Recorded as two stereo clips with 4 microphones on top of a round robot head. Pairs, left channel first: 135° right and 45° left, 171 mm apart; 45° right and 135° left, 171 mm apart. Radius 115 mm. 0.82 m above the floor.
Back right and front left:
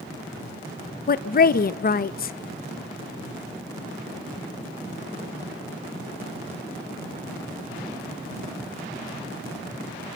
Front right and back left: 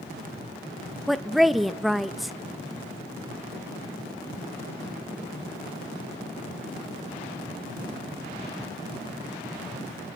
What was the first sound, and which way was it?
A woman speaking, 135° right.